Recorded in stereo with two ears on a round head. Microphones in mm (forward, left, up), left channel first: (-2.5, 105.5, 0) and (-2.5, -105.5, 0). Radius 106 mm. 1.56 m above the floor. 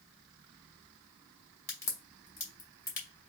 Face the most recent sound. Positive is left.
turn(degrees=10)  # may be behind; listen again after turning